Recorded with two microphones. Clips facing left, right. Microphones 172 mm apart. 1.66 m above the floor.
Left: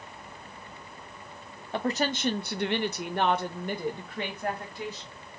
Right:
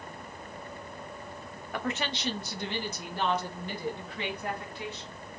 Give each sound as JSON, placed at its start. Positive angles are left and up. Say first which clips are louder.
{"t": 1.7, "sound": "a woman speaking", "louder": "left 5 dB", "side_deg": 30, "distance_m": 0.5}